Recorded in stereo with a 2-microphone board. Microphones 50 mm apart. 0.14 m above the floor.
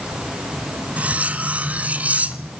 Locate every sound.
1.0 s cutlery clinking: 30° right (ahead or behind), 0.9 m